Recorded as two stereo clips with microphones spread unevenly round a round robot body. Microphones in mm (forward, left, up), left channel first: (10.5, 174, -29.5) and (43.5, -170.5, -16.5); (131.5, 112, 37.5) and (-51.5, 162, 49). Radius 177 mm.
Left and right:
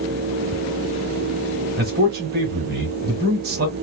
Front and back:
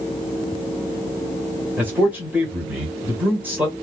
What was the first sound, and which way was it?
A man speaking, 115° right.